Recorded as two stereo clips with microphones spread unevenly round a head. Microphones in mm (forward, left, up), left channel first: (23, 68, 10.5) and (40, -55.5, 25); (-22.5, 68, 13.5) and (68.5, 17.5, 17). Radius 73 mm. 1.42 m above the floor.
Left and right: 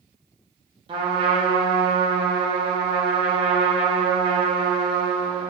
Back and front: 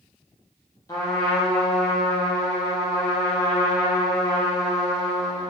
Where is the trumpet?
140° right, 1.4 m.